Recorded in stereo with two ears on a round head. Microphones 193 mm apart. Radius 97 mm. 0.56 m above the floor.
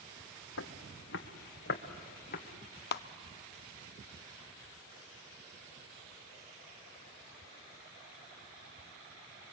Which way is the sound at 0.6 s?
70° left (ahead or behind).